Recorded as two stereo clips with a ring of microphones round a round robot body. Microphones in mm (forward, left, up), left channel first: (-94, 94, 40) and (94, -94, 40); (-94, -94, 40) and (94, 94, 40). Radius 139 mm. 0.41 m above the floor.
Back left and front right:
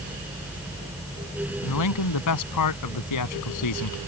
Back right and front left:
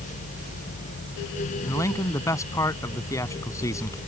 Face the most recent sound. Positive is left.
turn(degrees=145)